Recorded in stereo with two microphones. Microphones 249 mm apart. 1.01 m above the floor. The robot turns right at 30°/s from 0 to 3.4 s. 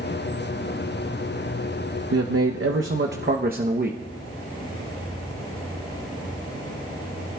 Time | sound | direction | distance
2.1 | a man speaking | 80° right | 0.7 m